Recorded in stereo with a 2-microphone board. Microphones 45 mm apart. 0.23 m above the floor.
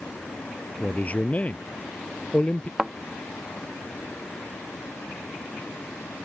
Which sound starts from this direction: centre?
A thud, at 2.8 s.